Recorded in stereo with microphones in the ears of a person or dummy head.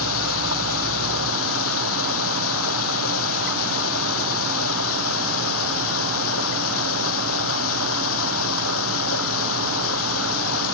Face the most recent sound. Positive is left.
turn(degrees=80)